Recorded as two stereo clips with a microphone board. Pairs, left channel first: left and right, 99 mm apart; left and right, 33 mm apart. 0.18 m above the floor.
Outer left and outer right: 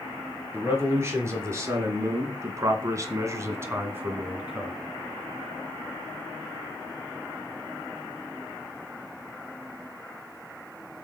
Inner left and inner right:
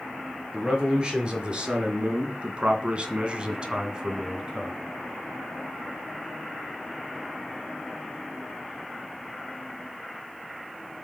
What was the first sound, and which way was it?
A man speaking, 25° right (ahead or behind).